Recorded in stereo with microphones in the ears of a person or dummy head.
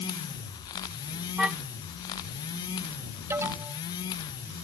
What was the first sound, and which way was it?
A car horn, 5° right (ahead or behind).